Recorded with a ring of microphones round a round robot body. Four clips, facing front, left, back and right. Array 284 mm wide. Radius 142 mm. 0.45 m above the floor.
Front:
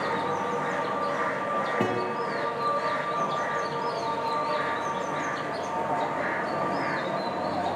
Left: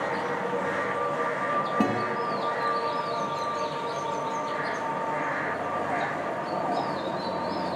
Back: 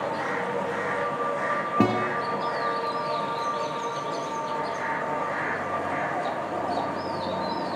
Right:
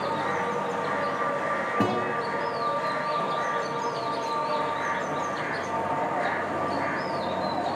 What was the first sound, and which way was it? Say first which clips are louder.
A guitar: right 3 dB, back 4 dB; 175° left.